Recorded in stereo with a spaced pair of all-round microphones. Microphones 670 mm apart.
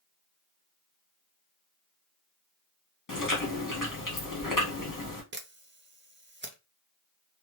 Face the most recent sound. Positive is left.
turn(degrees=-20)  # may be behind; listen again after turning